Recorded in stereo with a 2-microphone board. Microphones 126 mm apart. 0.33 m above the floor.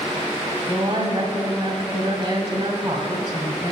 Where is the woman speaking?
45° right (ahead or behind), 2 m.